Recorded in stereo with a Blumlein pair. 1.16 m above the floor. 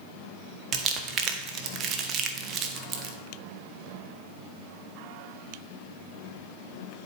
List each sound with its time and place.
0.7 s crumpling: 30° right, 0.8 m